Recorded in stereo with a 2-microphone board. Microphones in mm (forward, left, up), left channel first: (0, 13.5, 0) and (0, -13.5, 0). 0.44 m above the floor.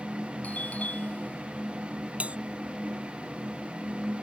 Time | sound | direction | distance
0.4 | a doorbell | 70° left (ahead or behind) | ?
2.2 | a bell | 55° right (ahead or behind) | ?